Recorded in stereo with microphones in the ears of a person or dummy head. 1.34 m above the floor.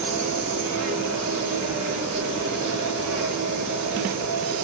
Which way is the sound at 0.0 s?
75° right (ahead or behind).